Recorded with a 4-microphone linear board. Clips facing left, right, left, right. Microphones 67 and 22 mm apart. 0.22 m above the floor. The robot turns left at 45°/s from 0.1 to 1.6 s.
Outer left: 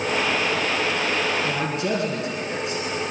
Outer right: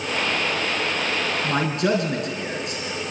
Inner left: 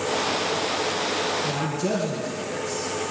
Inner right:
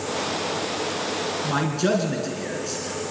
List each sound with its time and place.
1.4 s a man speaking: 50° right (ahead or behind), 3 m; by 3.0 s 55° right (ahead or behind), 3 m